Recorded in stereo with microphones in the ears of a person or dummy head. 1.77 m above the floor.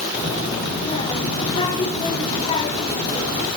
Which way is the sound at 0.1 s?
30° left (ahead or behind).